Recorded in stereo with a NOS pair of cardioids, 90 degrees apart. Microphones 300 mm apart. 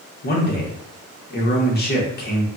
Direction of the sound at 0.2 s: 35° left.